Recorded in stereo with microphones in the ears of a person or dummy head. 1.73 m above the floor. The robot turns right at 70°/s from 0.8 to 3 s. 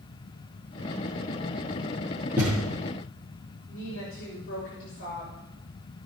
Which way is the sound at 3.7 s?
55° left (ahead or behind).